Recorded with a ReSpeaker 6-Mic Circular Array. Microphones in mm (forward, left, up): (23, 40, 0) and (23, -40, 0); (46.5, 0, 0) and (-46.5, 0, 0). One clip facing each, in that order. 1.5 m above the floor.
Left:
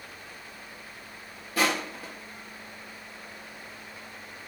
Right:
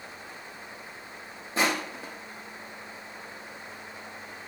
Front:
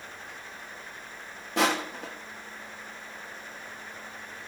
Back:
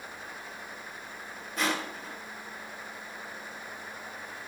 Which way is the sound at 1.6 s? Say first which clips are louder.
Even, front 5 dB; 20° right.